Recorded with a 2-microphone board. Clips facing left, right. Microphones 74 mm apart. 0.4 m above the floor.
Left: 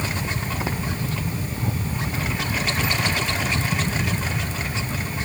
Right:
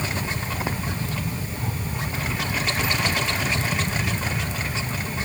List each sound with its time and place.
Only background noise.